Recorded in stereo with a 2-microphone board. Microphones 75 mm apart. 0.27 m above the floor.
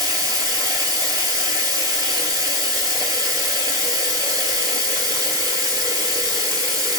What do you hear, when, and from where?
0.0 s running water: 55° right (ahead or behind), 1.0 m